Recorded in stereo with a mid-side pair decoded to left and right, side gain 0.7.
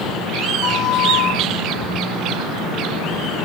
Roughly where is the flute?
Ahead left.